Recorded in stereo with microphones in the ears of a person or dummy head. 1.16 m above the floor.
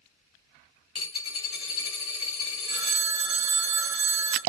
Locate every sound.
0.9 s a dropped coin: 30° left (ahead or behind), 1.4 m
2.7 s a phone ringing: 85° right, 1.2 m